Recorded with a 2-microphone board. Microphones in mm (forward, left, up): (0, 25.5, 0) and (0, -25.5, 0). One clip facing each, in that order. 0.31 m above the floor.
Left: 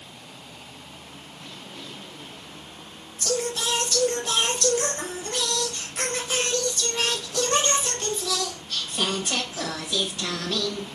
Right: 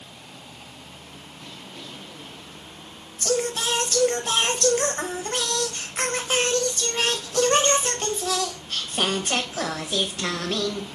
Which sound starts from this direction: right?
Singing, at 3.2 s.